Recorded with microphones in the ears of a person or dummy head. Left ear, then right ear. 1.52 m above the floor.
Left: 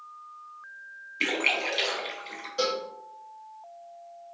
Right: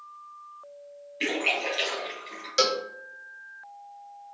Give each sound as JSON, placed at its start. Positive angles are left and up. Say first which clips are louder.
{"t": 1.2, "sound": "a splash", "louder": "left 1 dB", "side_deg": 10, "distance_m": 1.0}
{"t": 2.6, "sound": "a cowbell", "louder": "right 4 dB", "side_deg": -70, "distance_m": 0.5}